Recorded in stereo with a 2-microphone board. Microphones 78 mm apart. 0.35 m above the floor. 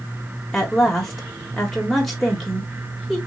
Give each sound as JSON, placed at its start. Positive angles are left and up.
{"t": 0.5, "sound": "a woman speaking", "side_deg": 5, "distance_m": 1.3}